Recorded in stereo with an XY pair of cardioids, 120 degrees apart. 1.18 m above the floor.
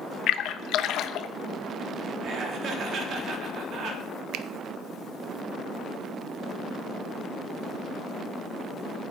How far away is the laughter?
About 3 m.